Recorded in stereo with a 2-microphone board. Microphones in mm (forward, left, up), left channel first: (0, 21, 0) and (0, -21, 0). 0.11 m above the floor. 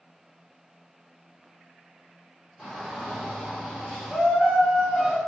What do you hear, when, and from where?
2.6 s a shout: centre (ahead or behind), 1.9 m; by 5.2 s 25° left (ahead or behind), 2 m